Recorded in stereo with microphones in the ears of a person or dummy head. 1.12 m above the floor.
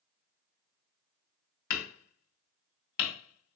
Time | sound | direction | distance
1.7 | hammering | 60° left (ahead or behind) | 2.5 m